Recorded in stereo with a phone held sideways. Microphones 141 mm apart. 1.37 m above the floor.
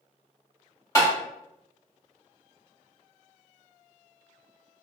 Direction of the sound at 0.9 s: 25° left (ahead or behind).